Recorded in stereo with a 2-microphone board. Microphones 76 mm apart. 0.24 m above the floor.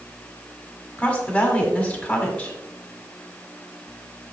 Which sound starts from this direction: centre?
A woman speaking, at 1.0 s.